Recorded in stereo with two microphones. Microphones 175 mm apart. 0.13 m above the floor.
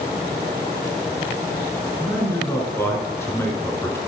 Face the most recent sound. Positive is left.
turn(degrees=15)  # may be behind; listen again after turning